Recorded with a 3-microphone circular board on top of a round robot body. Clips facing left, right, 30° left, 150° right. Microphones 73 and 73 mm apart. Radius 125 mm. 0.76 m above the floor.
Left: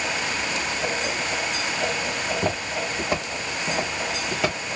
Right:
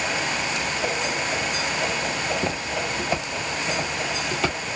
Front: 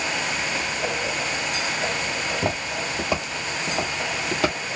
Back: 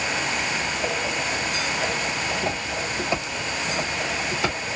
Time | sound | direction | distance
2.2 | footsteps | 45° left | 1.7 m